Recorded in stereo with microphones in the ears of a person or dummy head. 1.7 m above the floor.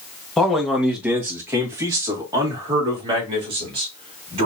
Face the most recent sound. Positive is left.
turn(degrees=-35)  # may be behind; listen again after turning